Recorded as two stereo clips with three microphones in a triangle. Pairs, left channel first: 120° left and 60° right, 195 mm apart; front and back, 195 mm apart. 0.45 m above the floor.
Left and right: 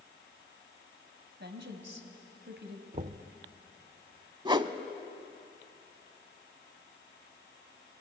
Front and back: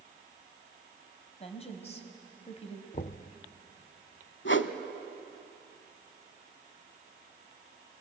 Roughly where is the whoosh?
Ahead.